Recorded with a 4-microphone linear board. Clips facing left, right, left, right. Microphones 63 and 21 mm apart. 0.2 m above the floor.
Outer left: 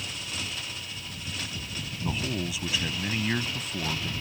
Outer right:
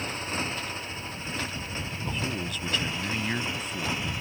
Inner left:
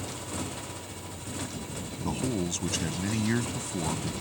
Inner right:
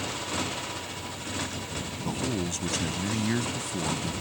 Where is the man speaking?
10° left (ahead or behind).